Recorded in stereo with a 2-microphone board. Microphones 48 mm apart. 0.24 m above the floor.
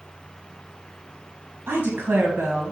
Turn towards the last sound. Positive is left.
turn(degrees=-45)  # may be behind; listen again after turning